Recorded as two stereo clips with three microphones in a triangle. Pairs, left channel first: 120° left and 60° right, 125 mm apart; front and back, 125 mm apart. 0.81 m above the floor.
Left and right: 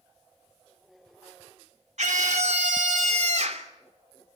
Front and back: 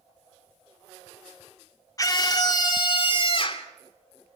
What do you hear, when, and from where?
2.0 s a scream: 60° right, 2.5 m; by 3.7 s 40° right, 3 m